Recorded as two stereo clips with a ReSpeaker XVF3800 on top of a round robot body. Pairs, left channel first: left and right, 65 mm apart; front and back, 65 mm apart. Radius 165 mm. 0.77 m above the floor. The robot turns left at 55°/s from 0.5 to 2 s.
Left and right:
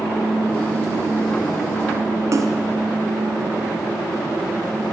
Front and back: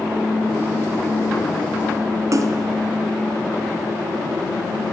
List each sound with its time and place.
2.3 s a splash: 135° right, 1.4 m